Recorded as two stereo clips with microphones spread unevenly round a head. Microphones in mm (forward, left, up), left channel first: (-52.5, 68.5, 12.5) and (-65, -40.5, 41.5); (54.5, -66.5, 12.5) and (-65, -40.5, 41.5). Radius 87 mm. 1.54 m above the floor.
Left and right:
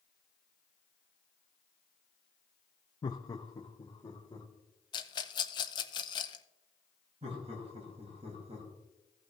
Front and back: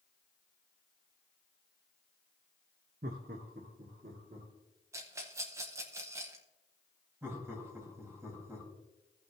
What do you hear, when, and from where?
3.0 s laughter: 135° left, 0.5 m
4.9 s a rattle: 130° left, 0.7 m
7.2 s laughter: 120° right, 3.5 m